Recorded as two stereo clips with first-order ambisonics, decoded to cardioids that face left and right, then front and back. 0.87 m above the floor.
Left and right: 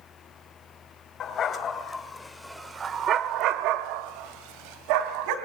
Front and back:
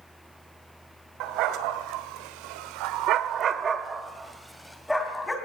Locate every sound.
1.2 s a dog barking: 150° left, 2 m; by 5.4 s 85° right, 3 m